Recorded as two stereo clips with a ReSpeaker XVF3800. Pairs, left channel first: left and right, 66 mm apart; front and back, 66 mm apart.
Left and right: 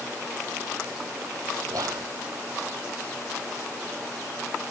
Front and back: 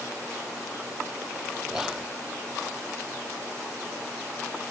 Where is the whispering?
95° right.